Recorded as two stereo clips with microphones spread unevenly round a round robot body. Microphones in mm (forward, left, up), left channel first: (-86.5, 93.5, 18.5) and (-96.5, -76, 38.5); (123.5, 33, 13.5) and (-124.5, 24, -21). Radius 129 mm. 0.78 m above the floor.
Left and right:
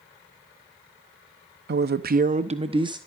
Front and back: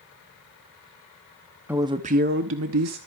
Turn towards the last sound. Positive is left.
turn(degrees=-160)